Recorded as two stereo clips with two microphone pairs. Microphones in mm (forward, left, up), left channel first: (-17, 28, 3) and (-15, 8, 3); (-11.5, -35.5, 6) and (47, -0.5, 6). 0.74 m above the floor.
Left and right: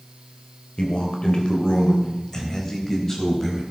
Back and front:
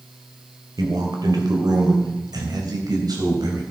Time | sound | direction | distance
0.8 | a man speaking | 50° left | 3 m